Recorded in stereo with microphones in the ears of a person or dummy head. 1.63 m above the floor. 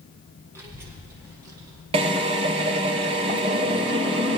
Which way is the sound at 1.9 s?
25° right (ahead or behind).